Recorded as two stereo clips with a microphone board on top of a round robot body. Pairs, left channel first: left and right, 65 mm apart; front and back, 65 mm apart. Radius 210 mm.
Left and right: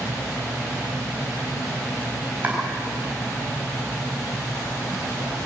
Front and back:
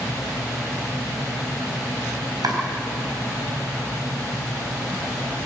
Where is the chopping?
155° right, 4.5 m.